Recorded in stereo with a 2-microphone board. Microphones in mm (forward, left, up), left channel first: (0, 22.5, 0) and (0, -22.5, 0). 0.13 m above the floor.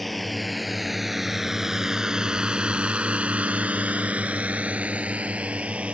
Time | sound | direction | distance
0.0 | a drone | centre (ahead or behind) | ?